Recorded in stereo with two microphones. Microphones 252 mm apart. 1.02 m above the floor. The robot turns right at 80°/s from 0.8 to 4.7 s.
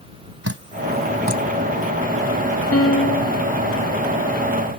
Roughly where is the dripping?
Right.